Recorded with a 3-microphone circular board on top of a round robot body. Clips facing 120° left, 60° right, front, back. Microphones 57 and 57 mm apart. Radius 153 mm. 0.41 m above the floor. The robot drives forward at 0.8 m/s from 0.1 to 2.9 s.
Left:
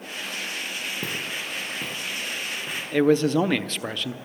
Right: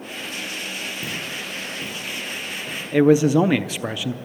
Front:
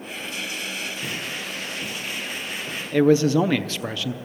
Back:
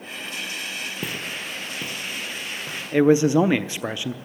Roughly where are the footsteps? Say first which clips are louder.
Right 1 dB, even; behind.